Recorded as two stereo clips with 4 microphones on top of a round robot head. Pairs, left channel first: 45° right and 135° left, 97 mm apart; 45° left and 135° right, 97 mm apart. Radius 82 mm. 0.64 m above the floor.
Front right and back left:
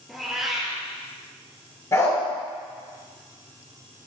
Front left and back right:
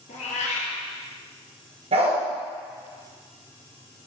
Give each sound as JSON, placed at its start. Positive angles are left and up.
{"t": 0.1, "sound": "a cat meowing", "azimuth_deg": 45, "distance_m": 2.5}
{"t": 1.9, "sound": "a dog barking", "azimuth_deg": -110, "distance_m": 2.5}